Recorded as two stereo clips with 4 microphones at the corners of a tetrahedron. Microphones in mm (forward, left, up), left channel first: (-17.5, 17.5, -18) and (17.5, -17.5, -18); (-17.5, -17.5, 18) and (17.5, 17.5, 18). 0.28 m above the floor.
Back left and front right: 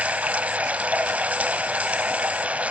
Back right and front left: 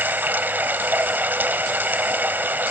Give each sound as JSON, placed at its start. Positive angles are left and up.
{"t": 0.0, "sound": "running water", "azimuth_deg": 5, "distance_m": 0.9}